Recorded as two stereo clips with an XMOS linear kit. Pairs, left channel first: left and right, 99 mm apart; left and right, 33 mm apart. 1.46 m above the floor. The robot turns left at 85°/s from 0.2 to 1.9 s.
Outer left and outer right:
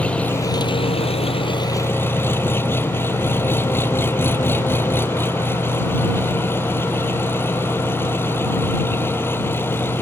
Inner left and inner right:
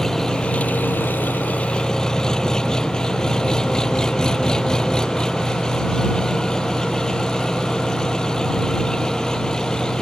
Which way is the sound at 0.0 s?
170° left.